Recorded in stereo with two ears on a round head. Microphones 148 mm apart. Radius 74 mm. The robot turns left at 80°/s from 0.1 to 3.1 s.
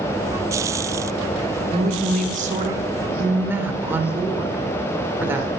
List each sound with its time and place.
1.7 s a woman speaking: 50° right, 1.1 m; by 5.5 s 160° right, 1.1 m